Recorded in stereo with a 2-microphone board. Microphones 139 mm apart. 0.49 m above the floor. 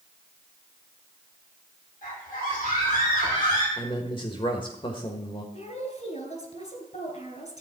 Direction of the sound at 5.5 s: 55° left (ahead or behind).